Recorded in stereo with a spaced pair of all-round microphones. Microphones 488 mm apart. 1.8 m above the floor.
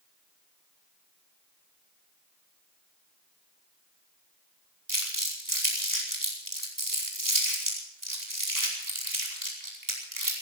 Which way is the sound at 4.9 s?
40° right (ahead or behind).